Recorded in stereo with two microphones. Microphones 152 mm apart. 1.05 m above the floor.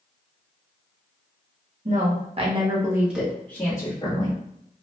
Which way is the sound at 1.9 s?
55° right (ahead or behind).